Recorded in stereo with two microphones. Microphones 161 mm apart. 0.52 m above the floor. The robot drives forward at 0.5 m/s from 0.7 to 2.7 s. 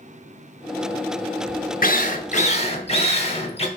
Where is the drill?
55° left (ahead or behind), 0.6 m; by 3.7 s 35° left (ahead or behind), 0.8 m.